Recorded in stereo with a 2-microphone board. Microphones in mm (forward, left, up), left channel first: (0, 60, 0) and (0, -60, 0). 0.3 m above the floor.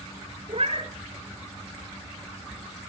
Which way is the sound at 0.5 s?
55° right (ahead or behind).